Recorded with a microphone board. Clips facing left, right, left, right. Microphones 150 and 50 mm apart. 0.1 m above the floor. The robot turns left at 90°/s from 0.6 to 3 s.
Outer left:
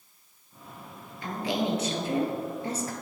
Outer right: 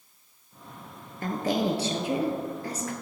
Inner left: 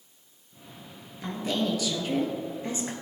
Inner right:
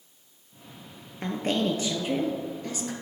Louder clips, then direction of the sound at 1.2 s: Outer right 3 dB, inner right 2 dB; 80° right.